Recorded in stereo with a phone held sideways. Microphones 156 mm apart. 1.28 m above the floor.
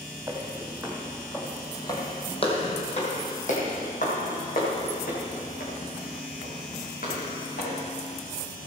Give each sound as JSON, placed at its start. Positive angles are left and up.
{"t": 0.3, "sound": "footsteps", "side_deg": -10, "distance_m": 1.8}